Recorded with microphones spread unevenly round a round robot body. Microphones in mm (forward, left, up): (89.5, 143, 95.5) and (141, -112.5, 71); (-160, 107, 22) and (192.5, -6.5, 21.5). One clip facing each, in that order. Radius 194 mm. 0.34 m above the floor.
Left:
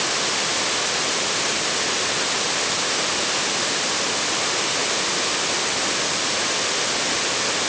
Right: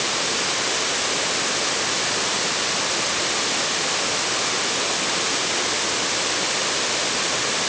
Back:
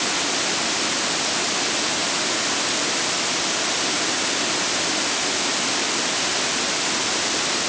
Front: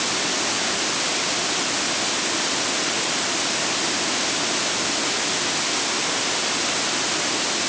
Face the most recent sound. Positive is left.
No sound to turn to.